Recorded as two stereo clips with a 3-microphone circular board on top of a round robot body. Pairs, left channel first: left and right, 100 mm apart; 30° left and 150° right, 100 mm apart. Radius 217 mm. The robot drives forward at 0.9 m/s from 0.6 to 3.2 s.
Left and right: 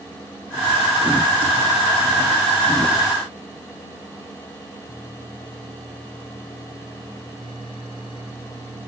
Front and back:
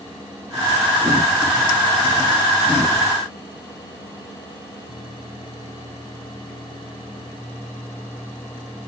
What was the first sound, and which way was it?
Only background noise.